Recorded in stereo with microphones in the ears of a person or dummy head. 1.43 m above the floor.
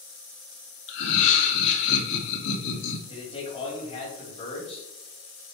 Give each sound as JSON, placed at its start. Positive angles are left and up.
{"t": 0.9, "sound": "laughter", "side_deg": 75, "distance_m": 2.0}
{"t": 3.1, "sound": "a man speaking", "side_deg": 30, "distance_m": 4.0}